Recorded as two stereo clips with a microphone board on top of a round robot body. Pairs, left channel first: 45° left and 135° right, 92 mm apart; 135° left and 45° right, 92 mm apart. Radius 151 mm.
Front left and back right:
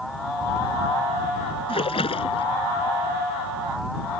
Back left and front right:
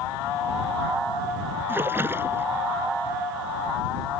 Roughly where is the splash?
Ahead.